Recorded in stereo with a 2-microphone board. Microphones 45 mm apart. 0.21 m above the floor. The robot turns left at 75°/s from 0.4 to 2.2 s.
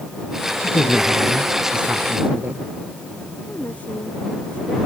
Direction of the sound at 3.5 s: 25° left (ahead or behind).